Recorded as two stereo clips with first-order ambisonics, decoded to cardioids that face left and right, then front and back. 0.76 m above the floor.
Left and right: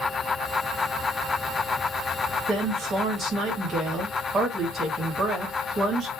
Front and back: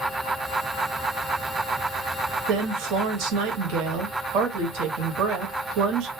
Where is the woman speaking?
155° right, 1.2 m.